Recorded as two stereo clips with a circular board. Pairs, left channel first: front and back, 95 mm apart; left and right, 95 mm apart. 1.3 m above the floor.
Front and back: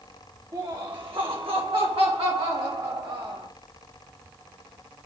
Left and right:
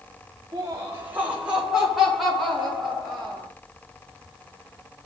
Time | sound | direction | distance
0.5 | laughter | 140° right | 1.0 m